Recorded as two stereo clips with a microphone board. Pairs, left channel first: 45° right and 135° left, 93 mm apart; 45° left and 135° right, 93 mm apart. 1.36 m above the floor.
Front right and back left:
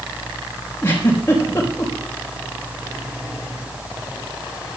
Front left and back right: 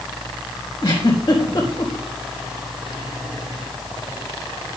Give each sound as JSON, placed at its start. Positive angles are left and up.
{"t": 0.8, "sound": "a giggle", "azimuth_deg": 20, "distance_m": 4.0}